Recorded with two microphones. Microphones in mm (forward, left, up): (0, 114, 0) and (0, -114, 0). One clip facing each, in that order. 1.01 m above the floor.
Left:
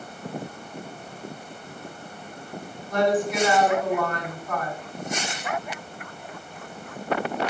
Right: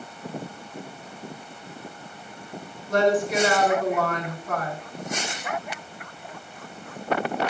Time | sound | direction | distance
2.9 | a woman speaking | 85° right | 2 m